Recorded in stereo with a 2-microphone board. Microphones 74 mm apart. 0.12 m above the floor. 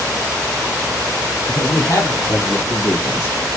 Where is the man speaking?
45° left (ahead or behind), 2.5 m; by 3.4 s 55° left (ahead or behind), 3.5 m.